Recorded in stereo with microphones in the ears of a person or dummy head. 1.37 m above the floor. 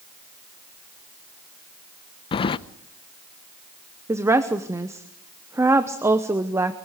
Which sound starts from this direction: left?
Keys jangling, at 2.3 s.